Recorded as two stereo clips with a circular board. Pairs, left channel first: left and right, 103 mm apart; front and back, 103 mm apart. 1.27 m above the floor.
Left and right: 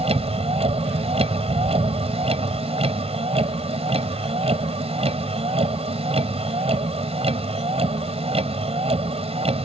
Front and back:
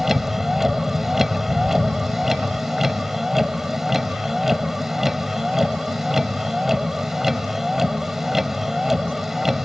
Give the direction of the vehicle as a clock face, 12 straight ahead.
3 o'clock.